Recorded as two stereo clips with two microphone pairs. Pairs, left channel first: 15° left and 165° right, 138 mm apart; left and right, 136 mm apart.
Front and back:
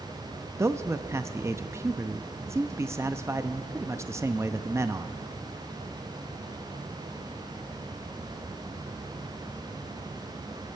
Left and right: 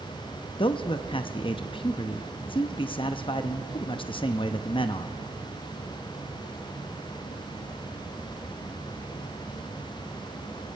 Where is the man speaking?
130° left, 0.5 m.